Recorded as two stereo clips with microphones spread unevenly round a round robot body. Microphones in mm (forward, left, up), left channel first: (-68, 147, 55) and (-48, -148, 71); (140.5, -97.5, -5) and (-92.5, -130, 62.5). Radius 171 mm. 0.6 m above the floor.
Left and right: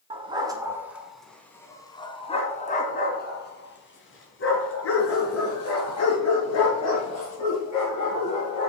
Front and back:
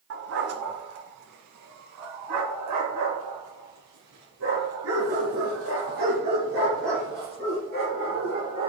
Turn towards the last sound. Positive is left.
turn(degrees=125)